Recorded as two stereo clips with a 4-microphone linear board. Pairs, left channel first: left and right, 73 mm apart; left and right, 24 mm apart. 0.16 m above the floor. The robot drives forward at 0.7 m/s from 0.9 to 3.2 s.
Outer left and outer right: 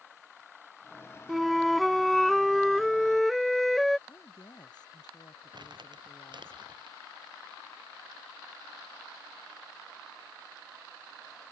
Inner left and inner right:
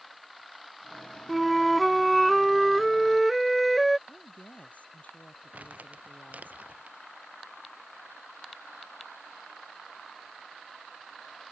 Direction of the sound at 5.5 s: 80° right.